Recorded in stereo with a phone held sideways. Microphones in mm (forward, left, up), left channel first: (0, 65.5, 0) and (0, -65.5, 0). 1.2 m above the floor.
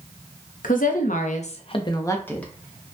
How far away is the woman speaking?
About 0.7 m.